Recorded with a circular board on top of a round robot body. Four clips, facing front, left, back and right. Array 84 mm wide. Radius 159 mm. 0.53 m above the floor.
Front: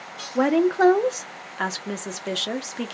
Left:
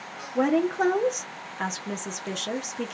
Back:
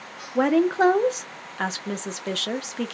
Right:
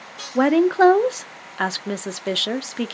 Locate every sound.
0.3 s a woman speaking: 90° right, 0.7 m